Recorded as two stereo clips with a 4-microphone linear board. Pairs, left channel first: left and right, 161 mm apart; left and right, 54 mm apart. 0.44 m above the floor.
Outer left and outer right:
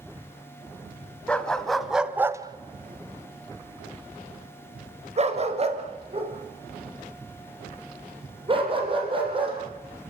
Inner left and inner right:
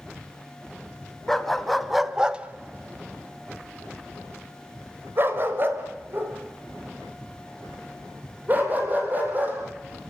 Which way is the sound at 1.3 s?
5° left (ahead or behind).